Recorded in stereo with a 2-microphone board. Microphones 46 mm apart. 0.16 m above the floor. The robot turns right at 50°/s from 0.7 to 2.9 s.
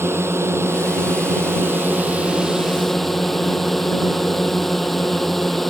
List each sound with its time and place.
0.0 s a drone: 105° right; by 5.7 s 5° left